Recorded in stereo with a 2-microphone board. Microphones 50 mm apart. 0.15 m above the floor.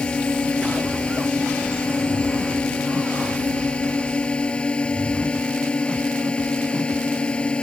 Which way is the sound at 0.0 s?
20° left (ahead or behind).